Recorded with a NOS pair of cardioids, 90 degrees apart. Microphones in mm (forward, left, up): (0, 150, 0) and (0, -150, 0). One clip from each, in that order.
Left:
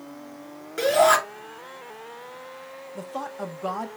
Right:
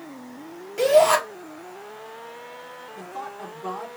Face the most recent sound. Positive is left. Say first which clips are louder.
# left 3 dB
turn(degrees=40)